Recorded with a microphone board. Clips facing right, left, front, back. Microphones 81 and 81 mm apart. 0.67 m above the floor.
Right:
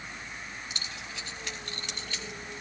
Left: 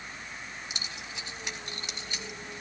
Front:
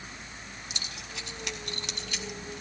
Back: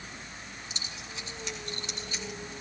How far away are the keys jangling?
About 3 m.